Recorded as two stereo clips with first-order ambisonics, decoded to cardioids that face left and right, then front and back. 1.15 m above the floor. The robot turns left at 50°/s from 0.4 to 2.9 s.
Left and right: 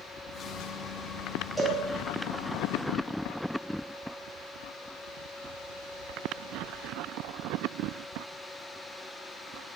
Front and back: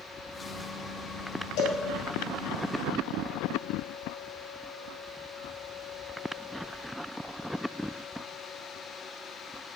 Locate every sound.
1.6 s a cowbell: 10° right, 1.6 m; by 1.8 s 20° right, 1.6 m